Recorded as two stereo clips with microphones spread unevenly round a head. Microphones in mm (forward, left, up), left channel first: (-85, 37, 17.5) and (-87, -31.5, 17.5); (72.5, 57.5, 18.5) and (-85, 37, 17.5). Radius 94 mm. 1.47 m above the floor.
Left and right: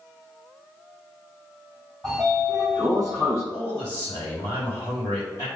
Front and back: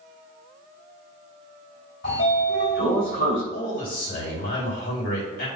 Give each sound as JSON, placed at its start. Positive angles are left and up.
{"t": 2.0, "sound": "a sliding door", "azimuth_deg": -5, "distance_m": 3.0}
{"t": 3.5, "sound": "a man speaking", "azimuth_deg": 25, "distance_m": 3.5}